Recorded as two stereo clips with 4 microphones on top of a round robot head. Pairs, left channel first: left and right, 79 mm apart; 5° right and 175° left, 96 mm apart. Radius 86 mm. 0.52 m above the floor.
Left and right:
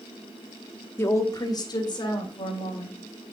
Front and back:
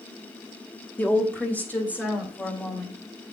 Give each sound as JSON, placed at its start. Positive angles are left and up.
{"t": 1.0, "sound": "a woman speaking", "azimuth_deg": 55, "distance_m": 1.2}